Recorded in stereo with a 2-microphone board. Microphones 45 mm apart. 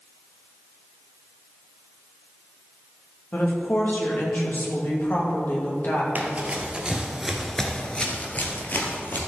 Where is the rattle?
I don't hear a rattle.